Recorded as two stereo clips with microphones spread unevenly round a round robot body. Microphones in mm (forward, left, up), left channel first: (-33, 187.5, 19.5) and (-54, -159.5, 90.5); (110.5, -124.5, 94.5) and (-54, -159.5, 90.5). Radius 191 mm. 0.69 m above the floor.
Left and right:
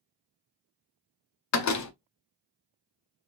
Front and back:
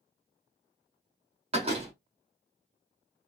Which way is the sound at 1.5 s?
130° left.